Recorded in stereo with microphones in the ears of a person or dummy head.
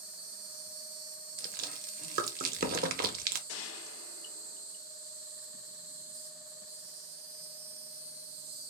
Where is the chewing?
55° right (ahead or behind), 0.6 m.